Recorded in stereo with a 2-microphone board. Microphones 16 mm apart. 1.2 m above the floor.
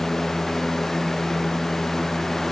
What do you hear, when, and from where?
Only background noise.